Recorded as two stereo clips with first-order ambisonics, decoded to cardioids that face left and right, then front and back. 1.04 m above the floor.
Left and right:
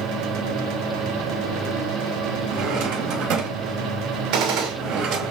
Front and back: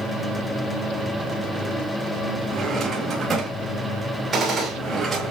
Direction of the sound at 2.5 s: 110° right.